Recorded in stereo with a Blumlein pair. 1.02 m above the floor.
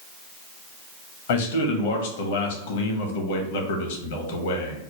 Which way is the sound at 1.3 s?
55° left.